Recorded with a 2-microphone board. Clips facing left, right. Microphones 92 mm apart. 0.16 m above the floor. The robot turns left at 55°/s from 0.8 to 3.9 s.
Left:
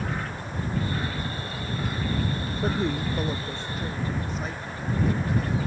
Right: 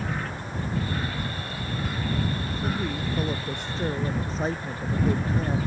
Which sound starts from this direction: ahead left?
A woman speaking, at 2.6 s.